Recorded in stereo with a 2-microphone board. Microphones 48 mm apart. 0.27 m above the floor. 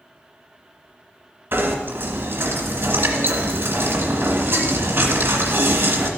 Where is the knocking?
50° right (ahead or behind), 1.8 m.